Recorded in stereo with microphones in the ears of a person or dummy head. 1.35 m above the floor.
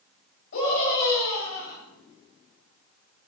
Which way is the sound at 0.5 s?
60° left (ahead or behind).